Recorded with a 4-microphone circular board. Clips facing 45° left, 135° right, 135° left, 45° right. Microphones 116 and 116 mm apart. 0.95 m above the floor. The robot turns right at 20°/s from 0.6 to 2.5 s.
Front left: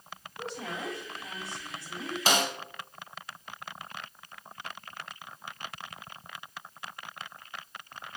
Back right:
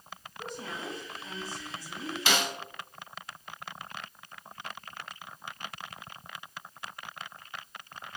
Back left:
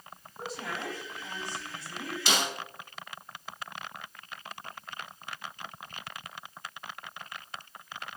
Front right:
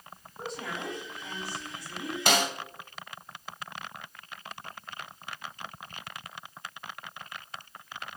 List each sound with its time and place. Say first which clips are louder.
0.4 s a woman speaking: front left 2 dB, even; 45° left, 3.5 m; by 2.2 s 75° left, 3.5 m
2.3 s a snare drum: front left 3 dB, front right 4 dB; 5° right, 2 m; by 2.5 s straight ahead, 2 m